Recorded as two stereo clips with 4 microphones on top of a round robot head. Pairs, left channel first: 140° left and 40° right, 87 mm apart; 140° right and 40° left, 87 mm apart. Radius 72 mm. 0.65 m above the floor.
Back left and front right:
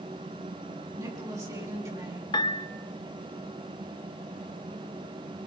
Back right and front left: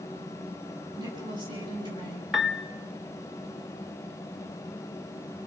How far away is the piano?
About 1.0 m.